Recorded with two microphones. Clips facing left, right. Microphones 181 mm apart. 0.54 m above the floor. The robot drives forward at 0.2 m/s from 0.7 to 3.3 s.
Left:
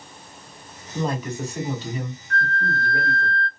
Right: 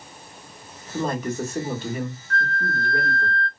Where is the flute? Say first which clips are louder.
Left 1 dB; 30° left (ahead or behind), 1.0 m; by 3.5 s 25° left (ahead or behind), 1.0 m.